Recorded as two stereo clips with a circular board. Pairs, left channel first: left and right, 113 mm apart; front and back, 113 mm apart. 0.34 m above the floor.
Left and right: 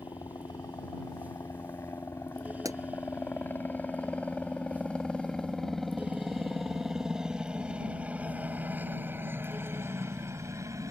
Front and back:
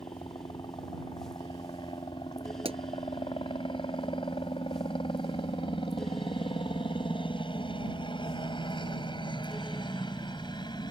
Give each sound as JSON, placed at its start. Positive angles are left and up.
{"t": 0.0, "sound": "a helicopter", "azimuth_deg": 40}
{"t": 2.6, "sound": "a pop", "azimuth_deg": -150}